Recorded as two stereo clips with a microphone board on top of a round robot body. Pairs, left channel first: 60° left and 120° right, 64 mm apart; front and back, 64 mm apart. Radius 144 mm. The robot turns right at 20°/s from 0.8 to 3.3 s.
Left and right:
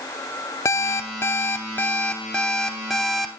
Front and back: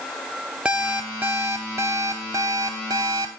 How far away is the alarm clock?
About 0.6 m.